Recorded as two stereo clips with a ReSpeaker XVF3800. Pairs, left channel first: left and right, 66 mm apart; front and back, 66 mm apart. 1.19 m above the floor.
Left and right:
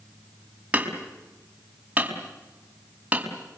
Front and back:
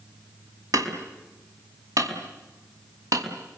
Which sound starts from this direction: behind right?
Hammering, at 0.7 s.